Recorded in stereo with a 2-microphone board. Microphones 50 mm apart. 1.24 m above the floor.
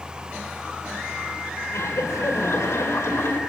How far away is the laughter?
About 4.5 m.